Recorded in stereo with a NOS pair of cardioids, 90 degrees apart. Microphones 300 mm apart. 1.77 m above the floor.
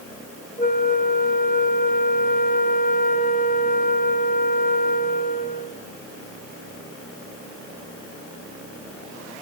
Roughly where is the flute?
Ahead left.